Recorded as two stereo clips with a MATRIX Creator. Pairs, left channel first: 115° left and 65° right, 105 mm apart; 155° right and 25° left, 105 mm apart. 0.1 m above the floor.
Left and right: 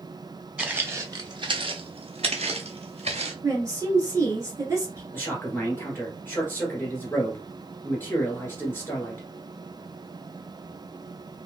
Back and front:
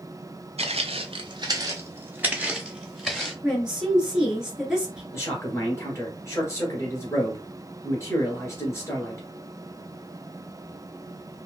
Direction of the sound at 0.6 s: 10° left.